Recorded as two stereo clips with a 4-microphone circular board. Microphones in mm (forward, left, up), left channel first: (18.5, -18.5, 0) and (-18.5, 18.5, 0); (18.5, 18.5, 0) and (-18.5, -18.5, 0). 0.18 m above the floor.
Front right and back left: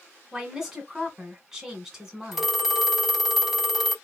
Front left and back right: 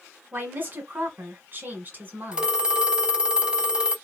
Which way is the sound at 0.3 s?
145° right.